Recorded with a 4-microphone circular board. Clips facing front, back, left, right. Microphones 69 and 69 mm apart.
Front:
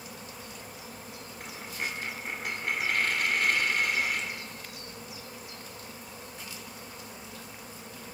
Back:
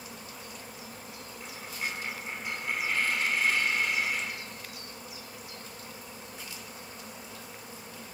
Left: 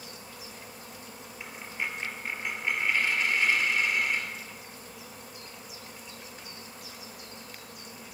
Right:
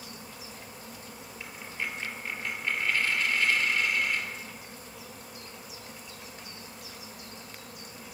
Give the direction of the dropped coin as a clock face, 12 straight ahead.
11 o'clock.